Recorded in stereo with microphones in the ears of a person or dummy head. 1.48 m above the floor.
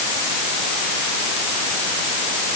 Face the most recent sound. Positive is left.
No sound to turn to.